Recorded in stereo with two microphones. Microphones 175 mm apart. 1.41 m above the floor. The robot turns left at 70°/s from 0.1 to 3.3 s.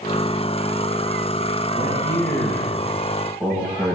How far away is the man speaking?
About 9 m.